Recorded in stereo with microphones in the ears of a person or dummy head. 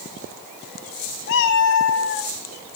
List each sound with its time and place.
1.3 s a cat meowing: 70° left (ahead or behind), 1.7 m